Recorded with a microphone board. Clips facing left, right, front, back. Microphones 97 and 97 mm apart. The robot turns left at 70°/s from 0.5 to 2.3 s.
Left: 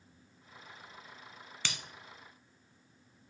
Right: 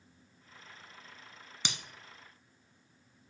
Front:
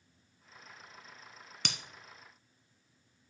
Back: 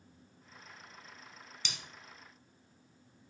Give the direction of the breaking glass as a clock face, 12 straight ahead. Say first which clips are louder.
Right 1 dB, front 6 dB; 1 o'clock.